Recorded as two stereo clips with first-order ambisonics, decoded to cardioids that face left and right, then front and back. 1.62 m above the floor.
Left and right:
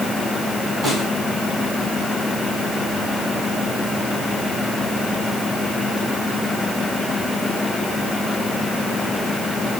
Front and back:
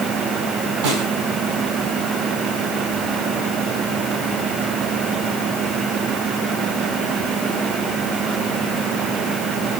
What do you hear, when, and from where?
0.8 s a snare drum: 175° right, 4 m